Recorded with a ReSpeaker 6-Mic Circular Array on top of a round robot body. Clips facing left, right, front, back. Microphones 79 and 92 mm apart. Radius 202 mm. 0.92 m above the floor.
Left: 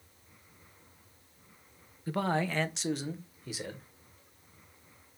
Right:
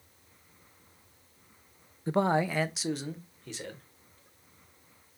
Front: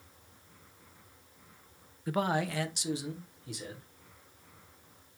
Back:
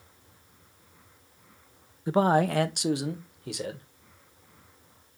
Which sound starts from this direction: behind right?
A man speaking, at 2.1 s.